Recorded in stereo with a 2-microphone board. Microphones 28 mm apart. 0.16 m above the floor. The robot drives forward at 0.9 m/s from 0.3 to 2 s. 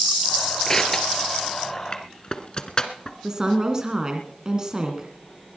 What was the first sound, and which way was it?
Crushing, 20° left (ahead or behind).